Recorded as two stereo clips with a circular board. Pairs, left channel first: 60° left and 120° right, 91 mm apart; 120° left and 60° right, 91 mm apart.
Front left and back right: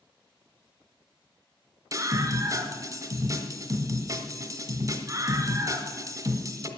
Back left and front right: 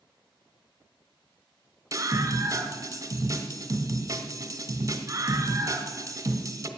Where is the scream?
90° right, 1.9 m.